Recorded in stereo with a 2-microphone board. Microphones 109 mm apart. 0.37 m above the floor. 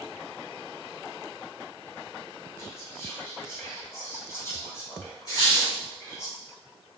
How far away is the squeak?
About 1.4 m.